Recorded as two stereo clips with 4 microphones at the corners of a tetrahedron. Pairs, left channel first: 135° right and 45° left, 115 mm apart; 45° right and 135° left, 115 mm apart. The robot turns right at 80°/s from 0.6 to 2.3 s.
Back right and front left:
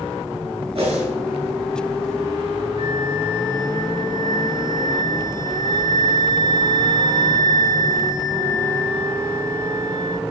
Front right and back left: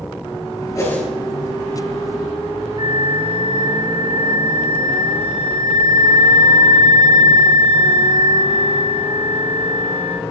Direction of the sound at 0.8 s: 15° left.